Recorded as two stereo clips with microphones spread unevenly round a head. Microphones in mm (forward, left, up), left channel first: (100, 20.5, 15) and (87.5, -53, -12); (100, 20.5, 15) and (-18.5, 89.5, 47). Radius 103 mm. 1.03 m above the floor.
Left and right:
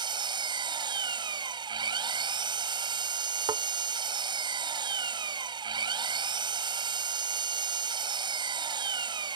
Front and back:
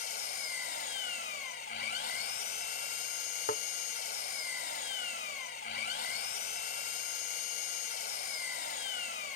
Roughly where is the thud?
Right.